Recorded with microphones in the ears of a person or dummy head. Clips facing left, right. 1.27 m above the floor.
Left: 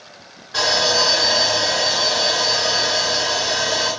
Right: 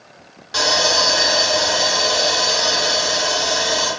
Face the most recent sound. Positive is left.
turn(degrees=-50)  # may be behind; listen again after turning